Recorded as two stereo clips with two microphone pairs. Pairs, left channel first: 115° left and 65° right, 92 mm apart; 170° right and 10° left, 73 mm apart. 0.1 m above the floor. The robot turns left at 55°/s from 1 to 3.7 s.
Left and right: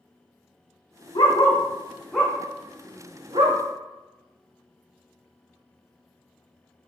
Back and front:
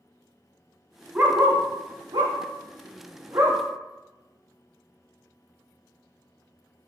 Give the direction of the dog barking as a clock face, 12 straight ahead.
9 o'clock.